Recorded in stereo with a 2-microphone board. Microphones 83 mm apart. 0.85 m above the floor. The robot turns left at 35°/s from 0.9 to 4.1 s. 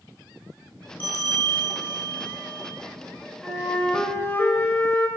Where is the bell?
150° left, 1.2 m; by 2.8 s 90° left, 1.2 m.